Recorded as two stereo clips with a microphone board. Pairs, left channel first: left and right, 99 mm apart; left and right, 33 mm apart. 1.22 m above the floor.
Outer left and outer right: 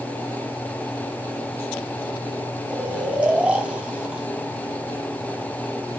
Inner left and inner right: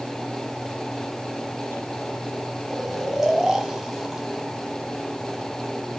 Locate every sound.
2.7 s snoring: 15° right (ahead or behind), 1.1 m